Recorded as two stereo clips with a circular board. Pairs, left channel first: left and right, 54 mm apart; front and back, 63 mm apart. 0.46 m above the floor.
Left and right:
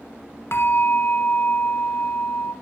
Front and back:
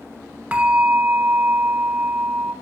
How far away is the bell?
About 0.5 m.